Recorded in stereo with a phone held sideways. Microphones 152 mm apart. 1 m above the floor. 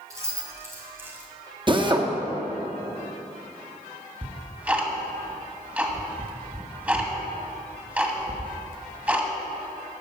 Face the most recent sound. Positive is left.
turn(degrees=-10)  # may be behind; listen again after turning